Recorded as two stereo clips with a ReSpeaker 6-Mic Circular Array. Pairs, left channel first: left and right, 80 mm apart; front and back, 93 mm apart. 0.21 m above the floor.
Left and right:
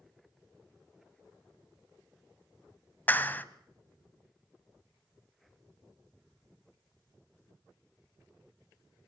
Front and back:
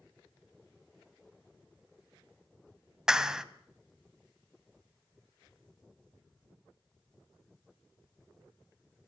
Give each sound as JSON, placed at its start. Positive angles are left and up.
{"t": 3.1, "sound": "a clap", "azimuth_deg": 105, "distance_m": 0.8}